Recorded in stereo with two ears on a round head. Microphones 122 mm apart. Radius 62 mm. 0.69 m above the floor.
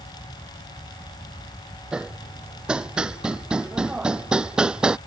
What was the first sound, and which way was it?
Hammering, 5° right (ahead or behind).